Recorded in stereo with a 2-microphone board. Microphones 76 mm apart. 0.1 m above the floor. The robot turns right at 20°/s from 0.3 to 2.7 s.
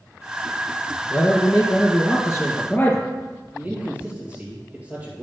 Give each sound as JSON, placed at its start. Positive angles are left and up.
{"t": 1.1, "sound": "a man speaking", "azimuth_deg": 115, "distance_m": 3.0}
{"t": 3.5, "sound": "a man speaking", "side_deg": -20, "distance_m": 2.5}